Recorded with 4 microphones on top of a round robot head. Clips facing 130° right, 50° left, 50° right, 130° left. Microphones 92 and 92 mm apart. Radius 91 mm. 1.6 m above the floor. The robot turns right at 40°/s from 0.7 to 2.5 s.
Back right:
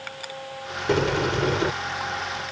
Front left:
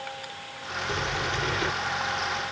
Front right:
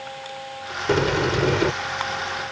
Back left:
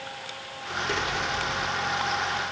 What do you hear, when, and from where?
0.9 s a sliding door: 100° right; by 1.7 s 65° right